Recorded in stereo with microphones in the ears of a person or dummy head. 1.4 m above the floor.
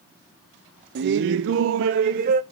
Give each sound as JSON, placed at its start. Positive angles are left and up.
{"t": 0.9, "sound": "laughter", "side_deg": -60, "distance_m": 0.7}